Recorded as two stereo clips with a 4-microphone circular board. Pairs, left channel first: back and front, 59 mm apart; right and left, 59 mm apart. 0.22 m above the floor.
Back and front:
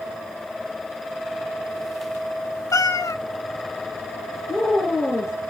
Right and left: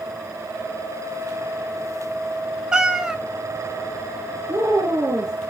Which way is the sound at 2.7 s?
170° left.